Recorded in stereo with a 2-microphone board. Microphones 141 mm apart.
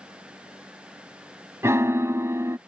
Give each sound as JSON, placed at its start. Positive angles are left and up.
{"t": 1.6, "sound": "a piano", "side_deg": -20}